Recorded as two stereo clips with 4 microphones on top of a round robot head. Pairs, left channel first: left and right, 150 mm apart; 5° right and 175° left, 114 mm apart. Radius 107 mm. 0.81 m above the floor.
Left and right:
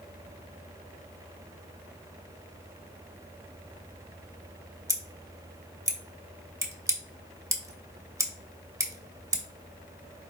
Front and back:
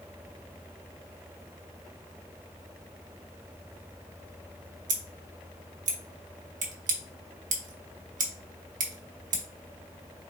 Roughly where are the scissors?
Behind.